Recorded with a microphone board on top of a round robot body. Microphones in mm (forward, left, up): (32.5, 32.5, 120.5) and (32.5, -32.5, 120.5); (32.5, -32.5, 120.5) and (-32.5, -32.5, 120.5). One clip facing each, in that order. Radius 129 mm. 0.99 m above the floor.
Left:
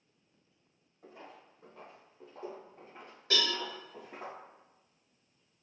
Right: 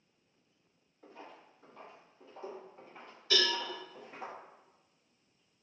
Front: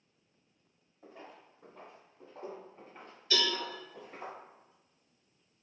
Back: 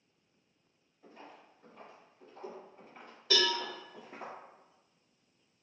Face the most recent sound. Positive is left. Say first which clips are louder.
# right 1 dB, back 2 dB
turn(degrees=145)